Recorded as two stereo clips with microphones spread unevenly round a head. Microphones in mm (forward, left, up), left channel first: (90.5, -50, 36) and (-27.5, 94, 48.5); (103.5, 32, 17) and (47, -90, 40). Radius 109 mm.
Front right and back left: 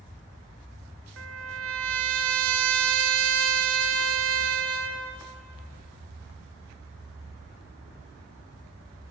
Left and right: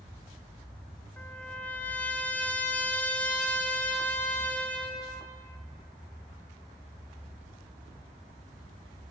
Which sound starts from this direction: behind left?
A trumpet, at 1.2 s.